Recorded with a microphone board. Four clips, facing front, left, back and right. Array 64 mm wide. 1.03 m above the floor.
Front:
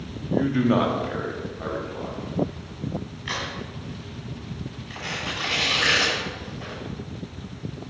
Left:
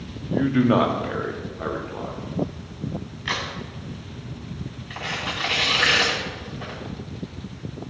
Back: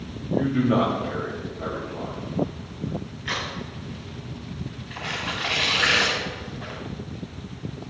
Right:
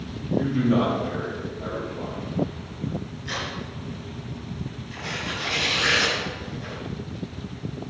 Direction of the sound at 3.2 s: 85° left.